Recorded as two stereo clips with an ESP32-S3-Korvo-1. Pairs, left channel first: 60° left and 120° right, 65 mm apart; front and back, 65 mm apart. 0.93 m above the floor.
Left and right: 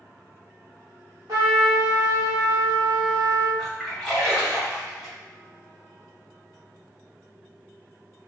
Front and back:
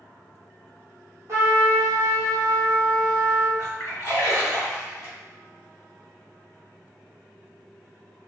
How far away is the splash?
About 1.8 m.